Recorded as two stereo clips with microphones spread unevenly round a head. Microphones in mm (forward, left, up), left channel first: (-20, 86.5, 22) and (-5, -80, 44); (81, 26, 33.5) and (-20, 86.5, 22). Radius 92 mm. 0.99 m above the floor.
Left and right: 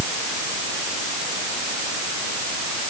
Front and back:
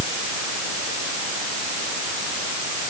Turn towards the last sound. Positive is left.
No sound to turn to.